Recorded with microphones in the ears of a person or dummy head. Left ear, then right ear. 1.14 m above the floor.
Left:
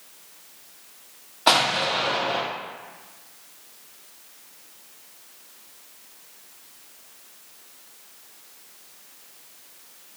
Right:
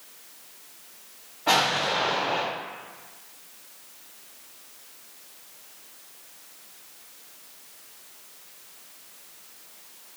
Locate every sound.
1.5 s an explosion: 65° left (ahead or behind), 1.0 m